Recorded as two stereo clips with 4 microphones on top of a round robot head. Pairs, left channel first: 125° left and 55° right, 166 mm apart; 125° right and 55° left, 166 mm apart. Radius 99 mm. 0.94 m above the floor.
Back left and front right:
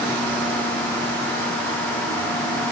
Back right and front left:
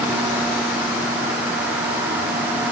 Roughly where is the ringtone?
I don't hear a ringtone.